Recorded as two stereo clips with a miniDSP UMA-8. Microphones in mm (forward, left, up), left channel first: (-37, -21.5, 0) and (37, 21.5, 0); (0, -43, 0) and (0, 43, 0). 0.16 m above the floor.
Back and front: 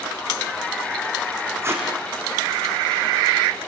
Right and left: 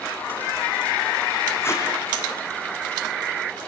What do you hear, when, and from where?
1.6 s tape being pulled: 30° right, 4 m